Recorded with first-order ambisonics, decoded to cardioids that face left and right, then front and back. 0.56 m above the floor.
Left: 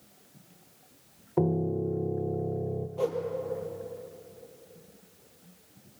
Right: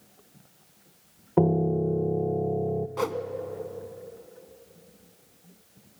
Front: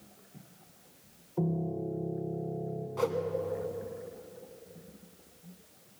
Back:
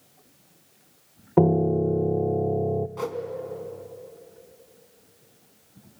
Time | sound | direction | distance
1.4 | a piano | 160° right | 0.6 m
3.0 | a whoosh | 90° right | 1.4 m